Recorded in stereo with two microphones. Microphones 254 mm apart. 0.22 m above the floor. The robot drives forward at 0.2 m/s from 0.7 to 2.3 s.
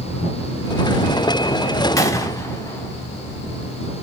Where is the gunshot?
15° left (ahead or behind), 0.6 m; by 2.9 s 10° left (ahead or behind), 0.6 m.